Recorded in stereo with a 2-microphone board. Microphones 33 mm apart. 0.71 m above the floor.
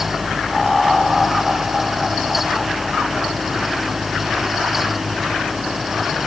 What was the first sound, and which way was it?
Laughter, 5° right (ahead or behind).